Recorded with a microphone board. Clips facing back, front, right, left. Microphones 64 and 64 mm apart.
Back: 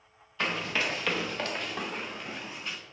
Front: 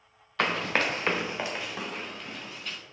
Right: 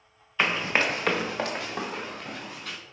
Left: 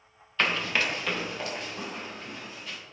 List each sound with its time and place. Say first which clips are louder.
0.4 s running footsteps: front 4 dB, right 2 dB; 15° right, 1.2 m; by 2.8 s 105° right, 2.5 m